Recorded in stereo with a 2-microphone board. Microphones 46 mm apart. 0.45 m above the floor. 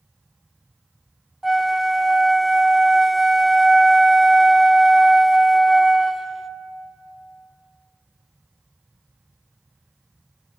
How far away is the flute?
About 0.6 m.